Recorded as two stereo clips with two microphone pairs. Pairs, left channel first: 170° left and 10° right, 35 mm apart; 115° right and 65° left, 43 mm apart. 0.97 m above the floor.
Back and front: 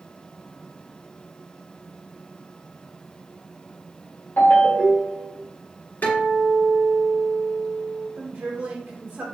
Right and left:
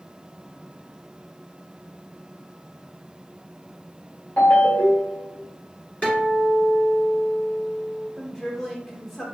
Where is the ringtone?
165° right, 1.7 m.